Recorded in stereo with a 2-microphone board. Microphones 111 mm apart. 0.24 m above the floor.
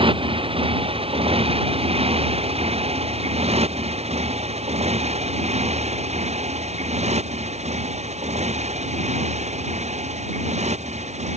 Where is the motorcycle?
50° right (ahead or behind); by 11.4 s 80° right.